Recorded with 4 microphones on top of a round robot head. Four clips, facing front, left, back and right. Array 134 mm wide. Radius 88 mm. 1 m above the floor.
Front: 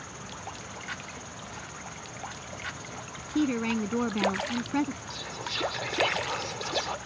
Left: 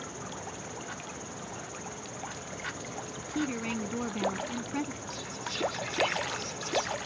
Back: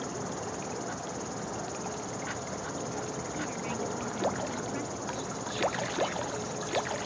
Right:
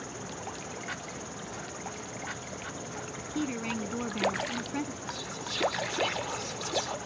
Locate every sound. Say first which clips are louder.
0.0 s an insect: right 1 dB, back 6 dB; 175° left
3.4 s a woman speaking: even, front 12 dB; 5° right
5.1 s whispering: even, back 3 dB; 20° right